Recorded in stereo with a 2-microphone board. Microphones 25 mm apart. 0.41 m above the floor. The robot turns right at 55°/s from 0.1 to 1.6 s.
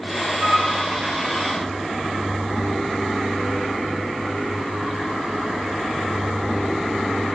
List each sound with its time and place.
0.4 s a flute: 65° right (ahead or behind), 4 m; by 0.7 s 50° right (ahead or behind), 4 m